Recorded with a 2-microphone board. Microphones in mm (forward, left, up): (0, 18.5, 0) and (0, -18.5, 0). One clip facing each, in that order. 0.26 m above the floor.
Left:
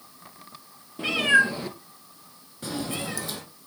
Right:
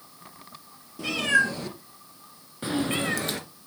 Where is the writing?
I don't hear writing.